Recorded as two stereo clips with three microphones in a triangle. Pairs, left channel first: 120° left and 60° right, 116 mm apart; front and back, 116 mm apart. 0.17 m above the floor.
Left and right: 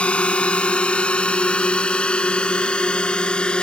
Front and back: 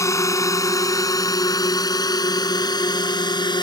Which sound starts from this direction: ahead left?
A drone, at 0.0 s.